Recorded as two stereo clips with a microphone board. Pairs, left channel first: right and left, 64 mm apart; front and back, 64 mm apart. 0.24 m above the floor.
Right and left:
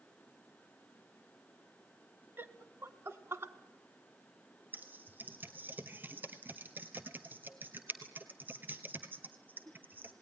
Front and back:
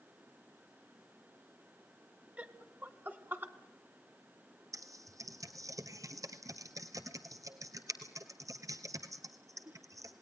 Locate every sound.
2.4 s laughter: 120° left, 1.3 m; by 3.5 s 130° left, 1.9 m
4.7 s typing on a keyboard: 150° left, 1.6 m